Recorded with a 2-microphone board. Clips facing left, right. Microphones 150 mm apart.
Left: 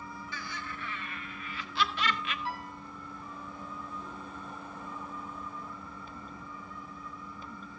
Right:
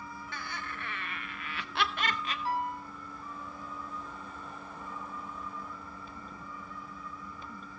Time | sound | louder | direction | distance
0.3 | laughter | right 2 dB | 60° right (ahead or behind) | 2.5 m
2.5 | a piano | right 6 dB | 40° right (ahead or behind) | 9 m